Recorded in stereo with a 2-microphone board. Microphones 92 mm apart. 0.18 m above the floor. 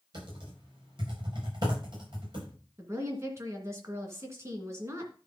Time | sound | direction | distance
0.1 | typing on a keyboard | 50° right (ahead or behind) | 7 m
2.8 | a woman speaking | 30° right (ahead or behind) | 2.5 m